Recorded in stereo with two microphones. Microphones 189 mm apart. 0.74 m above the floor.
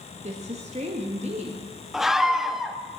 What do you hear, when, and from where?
0.2 s a woman speaking: 35° right (ahead or behind), 1.0 m
1.9 s a scream: centre (ahead or behind), 0.8 m